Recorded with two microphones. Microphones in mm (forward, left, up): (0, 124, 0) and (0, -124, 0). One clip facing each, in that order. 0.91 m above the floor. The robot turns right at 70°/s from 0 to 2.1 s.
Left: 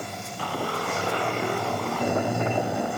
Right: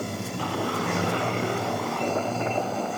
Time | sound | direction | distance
0.0 | running water | 135° right | ?